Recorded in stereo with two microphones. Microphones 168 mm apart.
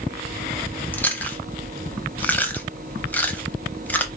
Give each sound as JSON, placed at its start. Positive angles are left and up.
{"t": 0.9, "sound": "chewing", "side_deg": 10, "distance_m": 0.6}